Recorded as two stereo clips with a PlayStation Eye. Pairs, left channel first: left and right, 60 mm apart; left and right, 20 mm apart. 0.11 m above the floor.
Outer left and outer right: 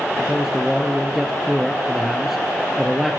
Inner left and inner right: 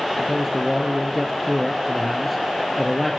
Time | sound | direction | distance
0.2 | a man speaking | 5° right (ahead or behind) | 1.7 m